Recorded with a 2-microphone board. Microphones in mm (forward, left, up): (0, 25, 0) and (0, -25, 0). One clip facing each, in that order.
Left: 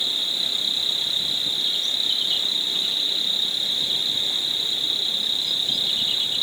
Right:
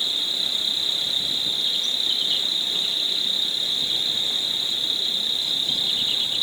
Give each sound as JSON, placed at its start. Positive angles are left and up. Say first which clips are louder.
{"t": 0.0, "sound": "an insect", "louder": "even", "side_deg": -5, "distance_m": 1.3}